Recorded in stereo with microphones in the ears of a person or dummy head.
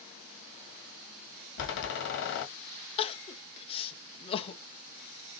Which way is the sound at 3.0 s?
30° left (ahead or behind).